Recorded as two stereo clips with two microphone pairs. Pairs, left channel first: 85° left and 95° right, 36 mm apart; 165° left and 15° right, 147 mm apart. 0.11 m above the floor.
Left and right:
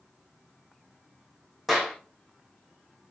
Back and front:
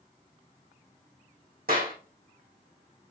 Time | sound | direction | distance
1.7 | a clap | 15° right | 4 m